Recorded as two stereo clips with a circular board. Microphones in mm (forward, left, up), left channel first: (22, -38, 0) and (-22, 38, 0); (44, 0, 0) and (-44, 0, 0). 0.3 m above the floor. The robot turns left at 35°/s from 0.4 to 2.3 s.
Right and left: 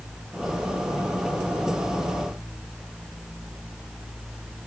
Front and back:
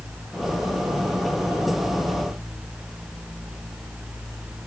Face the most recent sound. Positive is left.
No sound to turn to.